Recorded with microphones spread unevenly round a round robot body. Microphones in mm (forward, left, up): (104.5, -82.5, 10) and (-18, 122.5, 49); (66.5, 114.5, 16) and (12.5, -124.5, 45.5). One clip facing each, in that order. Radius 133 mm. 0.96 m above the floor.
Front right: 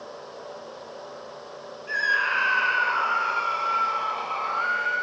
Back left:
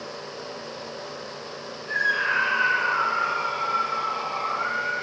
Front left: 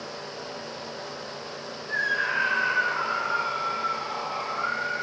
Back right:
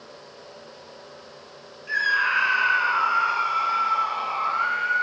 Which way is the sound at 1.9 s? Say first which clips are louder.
Back left 2 dB, front left 3 dB; 110° right.